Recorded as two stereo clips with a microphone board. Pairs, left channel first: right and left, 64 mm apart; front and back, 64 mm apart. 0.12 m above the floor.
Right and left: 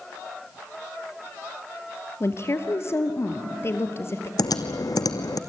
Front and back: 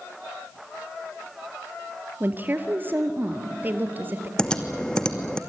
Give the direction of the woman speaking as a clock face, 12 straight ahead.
4 o'clock.